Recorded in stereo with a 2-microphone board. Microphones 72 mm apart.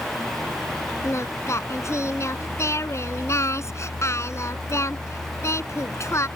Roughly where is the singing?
Left.